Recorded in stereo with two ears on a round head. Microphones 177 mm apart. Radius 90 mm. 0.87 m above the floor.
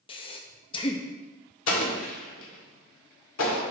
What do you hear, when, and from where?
0.1 s breathing: 25° left (ahead or behind), 0.6 m
1.7 s an explosion: 80° left, 1.9 m